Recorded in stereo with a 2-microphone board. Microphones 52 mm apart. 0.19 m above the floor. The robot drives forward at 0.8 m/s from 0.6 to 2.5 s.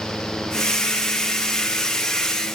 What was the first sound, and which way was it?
Only background noise.